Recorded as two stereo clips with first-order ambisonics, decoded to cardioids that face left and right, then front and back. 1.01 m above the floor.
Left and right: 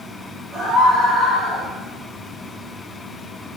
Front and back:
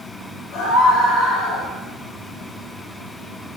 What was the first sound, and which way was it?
A scream, 25° right.